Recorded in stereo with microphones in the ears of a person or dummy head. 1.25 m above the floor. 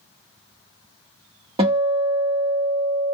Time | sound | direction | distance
1.6 | a guitar | 30° right (ahead or behind) | 0.9 m